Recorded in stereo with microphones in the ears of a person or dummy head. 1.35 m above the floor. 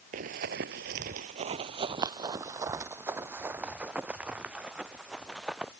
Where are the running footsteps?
45° right (ahead or behind); by 5.7 s 5° right (ahead or behind).